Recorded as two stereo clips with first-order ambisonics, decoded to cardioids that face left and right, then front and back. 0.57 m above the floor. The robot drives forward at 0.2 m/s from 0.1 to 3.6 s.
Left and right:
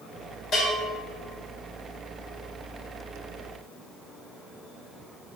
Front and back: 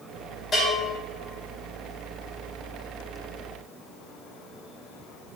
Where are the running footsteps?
I don't hear running footsteps.